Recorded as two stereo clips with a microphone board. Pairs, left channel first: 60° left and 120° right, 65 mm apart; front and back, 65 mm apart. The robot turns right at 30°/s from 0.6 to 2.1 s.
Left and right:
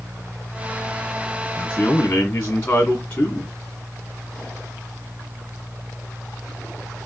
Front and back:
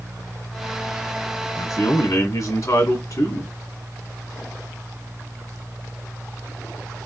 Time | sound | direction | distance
1.6 | a man speaking | 15° right | 1.9 m